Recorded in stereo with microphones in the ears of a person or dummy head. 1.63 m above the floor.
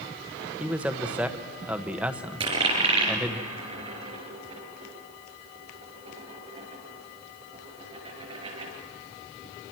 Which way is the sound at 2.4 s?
30° right (ahead or behind).